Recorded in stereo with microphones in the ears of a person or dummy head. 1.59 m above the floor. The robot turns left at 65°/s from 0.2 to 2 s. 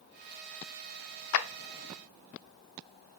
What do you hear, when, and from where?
1.3 s a clap: 75° left (ahead or behind), 0.5 m; by 1.5 s 80° left, 0.5 m